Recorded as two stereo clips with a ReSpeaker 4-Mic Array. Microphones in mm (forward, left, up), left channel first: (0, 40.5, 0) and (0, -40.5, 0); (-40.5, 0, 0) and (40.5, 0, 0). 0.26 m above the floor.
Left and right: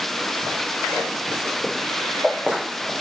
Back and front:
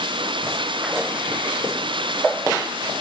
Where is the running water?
Straight ahead.